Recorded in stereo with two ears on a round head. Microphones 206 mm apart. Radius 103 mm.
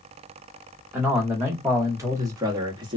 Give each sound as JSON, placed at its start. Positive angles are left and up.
{"t": 0.9, "sound": "a man speaking", "side_deg": -10, "distance_m": 1.4}